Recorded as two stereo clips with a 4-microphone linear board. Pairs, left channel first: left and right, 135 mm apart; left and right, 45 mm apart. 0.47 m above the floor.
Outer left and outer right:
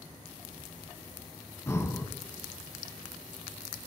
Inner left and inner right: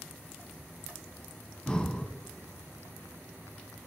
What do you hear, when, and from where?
1.7 s breathing: 20° left (ahead or behind), 0.7 m